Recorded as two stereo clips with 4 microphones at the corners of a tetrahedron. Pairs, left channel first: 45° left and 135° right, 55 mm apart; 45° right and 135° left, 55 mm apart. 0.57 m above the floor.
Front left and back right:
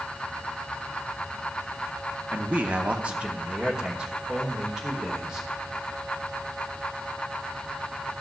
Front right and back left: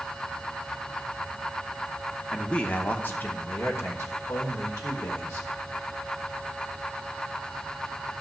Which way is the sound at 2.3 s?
110° right.